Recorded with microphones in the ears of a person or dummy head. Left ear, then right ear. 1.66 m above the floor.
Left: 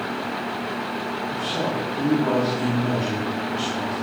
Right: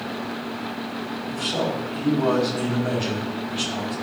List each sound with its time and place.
1.3 s a man speaking: 35° right (ahead or behind), 3.5 m